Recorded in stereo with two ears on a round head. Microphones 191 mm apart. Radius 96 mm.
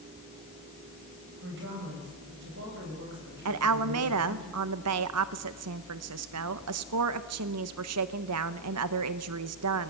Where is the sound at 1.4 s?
55° right (ahead or behind), 8 m.